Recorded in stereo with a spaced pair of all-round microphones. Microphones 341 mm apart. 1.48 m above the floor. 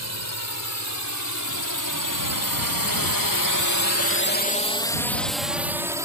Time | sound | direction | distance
0.0 | a drone | 50° left (ahead or behind) | ?